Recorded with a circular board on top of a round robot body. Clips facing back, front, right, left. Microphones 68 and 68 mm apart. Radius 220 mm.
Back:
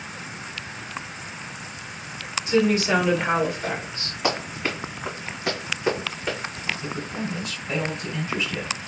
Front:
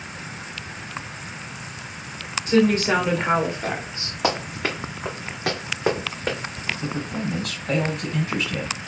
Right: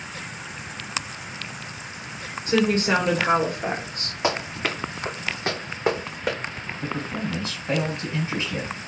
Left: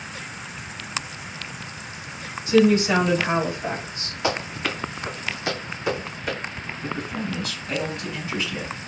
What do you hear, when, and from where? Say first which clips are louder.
2.5 s a woman speaking: front 2 dB, left 4 dB; 40° right, 3 m; by 4.1 s 70° right, 1.8 m
4.2 s running footsteps: front 2 dB, even; 15° right, 3 m; by 6.4 s 45° right, 2.5 m
6.8 s a man speaking: front 2 dB, right 1 dB; 25° right, 3 m